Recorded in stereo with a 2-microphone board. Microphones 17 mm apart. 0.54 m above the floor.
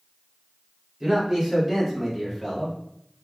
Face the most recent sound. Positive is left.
turn(degrees=0)  # may be behind; listen again after turning